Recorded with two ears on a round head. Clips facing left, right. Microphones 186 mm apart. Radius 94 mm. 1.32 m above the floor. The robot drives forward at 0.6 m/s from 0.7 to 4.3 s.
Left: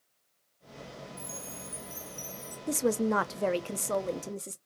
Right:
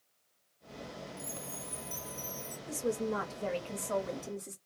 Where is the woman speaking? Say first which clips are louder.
Left 6 dB; 65° left (ahead or behind), 0.7 m; by 4.6 s 40° left (ahead or behind), 1.0 m.